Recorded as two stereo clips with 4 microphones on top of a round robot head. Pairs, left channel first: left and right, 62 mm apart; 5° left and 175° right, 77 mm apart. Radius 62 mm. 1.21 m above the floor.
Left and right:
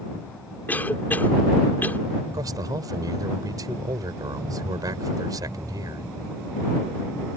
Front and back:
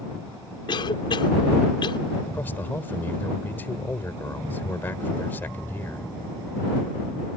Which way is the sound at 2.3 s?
65° right.